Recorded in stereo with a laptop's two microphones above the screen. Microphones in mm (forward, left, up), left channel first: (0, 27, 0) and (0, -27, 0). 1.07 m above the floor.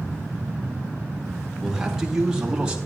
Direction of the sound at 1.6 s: 10° right (ahead or behind).